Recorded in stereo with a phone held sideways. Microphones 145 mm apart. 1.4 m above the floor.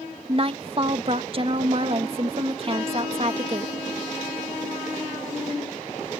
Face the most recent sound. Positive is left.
turn(degrees=-40)  # may be behind; listen again after turning